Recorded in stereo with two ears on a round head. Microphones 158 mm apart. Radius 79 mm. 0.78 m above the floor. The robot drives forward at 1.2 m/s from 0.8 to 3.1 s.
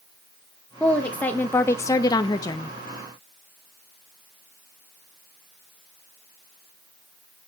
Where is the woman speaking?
5° left (ahead or behind), 1.9 m; by 2.7 s 15° left (ahead or behind), 0.8 m.